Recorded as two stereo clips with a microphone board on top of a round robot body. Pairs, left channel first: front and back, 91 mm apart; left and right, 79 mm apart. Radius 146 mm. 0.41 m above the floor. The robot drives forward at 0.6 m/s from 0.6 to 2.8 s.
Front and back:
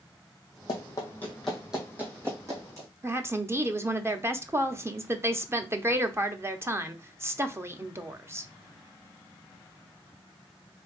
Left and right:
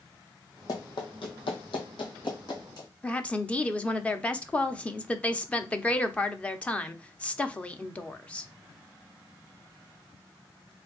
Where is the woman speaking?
150° left, 0.9 m.